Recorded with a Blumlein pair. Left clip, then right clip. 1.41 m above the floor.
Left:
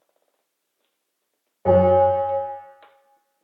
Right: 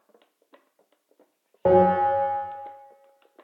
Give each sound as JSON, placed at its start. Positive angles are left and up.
{"t": 1.6, "sound": "a bell", "azimuth_deg": -65, "distance_m": 1.3}